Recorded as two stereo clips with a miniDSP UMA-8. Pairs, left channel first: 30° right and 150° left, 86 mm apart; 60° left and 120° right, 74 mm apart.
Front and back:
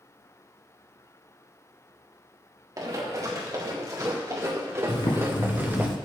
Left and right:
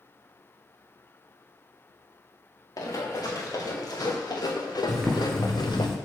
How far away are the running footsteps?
About 4 m.